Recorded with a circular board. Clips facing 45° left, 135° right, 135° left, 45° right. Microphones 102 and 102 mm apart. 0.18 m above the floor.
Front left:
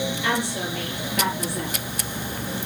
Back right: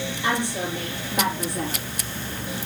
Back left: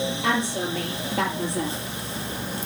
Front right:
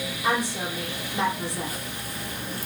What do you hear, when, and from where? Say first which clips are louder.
0.2 s a woman speaking: back right 5 dB, front right 1 dB; 150° left, 4.5 m